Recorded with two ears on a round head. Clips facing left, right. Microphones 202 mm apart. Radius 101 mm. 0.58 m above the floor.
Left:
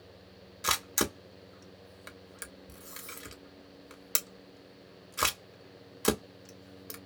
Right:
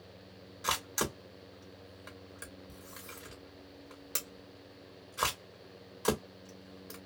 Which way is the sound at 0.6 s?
35° left (ahead or behind).